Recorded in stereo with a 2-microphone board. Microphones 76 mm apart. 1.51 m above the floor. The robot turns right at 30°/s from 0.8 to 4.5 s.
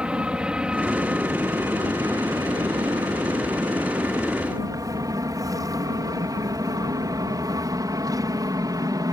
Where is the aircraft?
15° right (ahead or behind); by 9.1 s 55° right (ahead or behind).